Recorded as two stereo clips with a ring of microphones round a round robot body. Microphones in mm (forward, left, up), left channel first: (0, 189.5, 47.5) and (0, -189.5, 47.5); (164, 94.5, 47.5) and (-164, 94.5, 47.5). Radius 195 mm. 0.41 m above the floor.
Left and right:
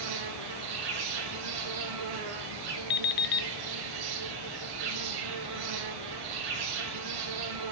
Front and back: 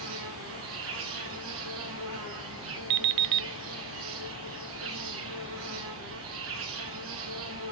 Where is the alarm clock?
150° left, 0.6 m.